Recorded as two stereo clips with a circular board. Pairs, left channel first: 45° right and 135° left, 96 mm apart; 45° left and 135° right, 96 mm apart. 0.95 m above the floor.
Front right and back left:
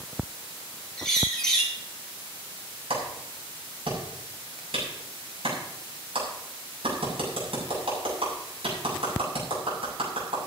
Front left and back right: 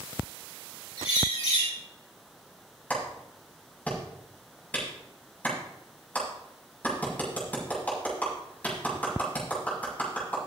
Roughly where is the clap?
Behind left.